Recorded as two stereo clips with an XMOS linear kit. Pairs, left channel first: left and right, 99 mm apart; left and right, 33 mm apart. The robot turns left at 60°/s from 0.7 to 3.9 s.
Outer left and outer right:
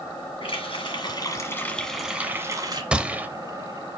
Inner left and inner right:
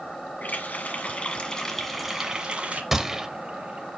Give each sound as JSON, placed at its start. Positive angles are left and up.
{"t": 0.4, "sound": "a running tap", "azimuth_deg": 75, "distance_m": 1.6}
{"t": 2.9, "sound": "a gunshot", "side_deg": -10, "distance_m": 0.7}